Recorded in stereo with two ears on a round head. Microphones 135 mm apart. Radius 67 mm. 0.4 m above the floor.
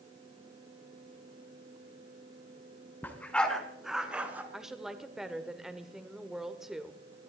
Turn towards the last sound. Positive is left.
turn(degrees=-5)  # may be behind; listen again after turning